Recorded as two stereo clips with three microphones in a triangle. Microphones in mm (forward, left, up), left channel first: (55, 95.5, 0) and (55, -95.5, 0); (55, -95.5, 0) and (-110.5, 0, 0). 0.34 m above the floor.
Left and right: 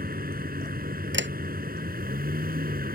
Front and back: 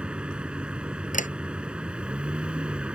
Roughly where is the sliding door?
Right.